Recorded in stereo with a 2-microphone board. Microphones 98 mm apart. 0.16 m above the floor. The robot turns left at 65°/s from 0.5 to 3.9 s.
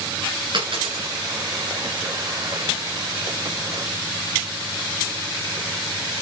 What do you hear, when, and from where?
0.5 s a dropped coin: 60° right (ahead or behind), 8 m; by 1.1 s 80° right, 8 m